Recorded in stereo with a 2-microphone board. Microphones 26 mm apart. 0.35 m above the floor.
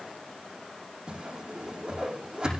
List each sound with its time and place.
1.1 s a whoosh: 30° right (ahead or behind), 6 m